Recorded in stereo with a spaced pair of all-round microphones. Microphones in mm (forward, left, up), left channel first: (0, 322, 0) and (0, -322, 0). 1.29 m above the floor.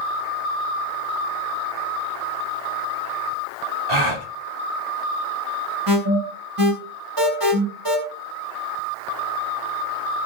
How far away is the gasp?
About 2.5 m.